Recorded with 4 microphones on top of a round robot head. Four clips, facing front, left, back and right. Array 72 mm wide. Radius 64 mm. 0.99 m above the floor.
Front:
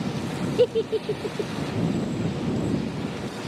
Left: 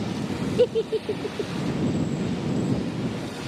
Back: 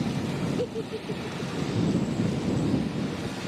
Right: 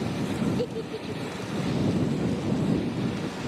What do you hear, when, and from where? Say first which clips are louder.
0.6 s a giggle: left 9 dB, front 9 dB; 45° left